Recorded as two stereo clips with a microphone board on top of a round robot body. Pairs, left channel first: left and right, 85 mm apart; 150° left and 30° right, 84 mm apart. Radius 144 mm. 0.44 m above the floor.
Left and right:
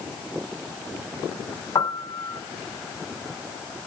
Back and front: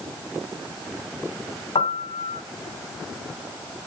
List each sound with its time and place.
1.8 s a piano: 135° left, 1.1 m